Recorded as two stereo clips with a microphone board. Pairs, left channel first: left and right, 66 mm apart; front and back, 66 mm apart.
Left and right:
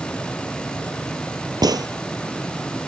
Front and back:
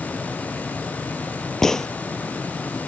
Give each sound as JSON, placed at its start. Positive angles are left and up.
{"t": 1.6, "sound": "a gunshot", "azimuth_deg": -85}